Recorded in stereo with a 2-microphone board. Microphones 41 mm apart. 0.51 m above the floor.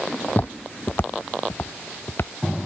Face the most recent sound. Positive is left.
turn(degrees=55)  # may be behind; listen again after turning